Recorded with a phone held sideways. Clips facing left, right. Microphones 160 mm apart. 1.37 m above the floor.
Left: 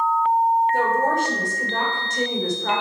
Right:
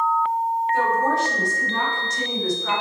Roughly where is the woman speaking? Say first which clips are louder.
Even; left.